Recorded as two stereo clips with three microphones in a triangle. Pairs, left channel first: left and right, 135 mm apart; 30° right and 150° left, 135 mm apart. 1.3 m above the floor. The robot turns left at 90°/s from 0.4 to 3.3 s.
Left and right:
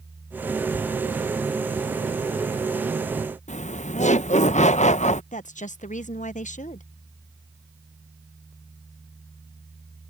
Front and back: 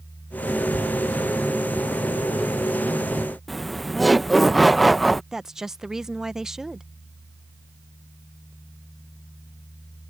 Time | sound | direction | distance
3.5 | laughter | 60° left | ?
5.3 | a woman speaking | 65° left | ?